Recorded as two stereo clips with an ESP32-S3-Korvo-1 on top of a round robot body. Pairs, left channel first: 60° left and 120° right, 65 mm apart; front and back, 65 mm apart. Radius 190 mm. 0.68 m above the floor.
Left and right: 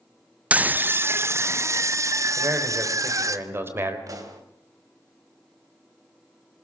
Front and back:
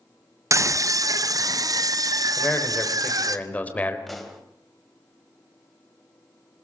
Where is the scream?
Straight behind, 0.6 m; by 3.4 s 155° right, 1.8 m.